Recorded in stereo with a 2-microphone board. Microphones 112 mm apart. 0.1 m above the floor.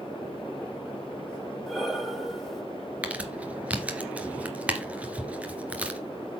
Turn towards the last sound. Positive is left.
turn(degrees=-15)  # may be behind; listen again after turning